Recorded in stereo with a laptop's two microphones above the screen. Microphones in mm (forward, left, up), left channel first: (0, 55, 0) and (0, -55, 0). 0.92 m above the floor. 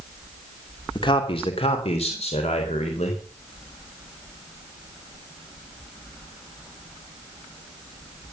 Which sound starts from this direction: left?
A man speaking, at 0.9 s.